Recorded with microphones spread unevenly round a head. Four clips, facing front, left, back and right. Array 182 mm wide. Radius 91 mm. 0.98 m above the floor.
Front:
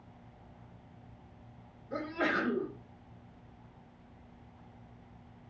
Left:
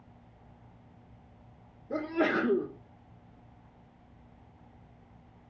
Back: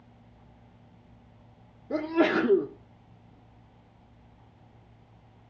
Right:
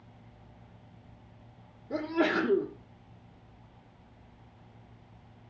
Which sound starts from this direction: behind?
A sneeze, at 1.9 s.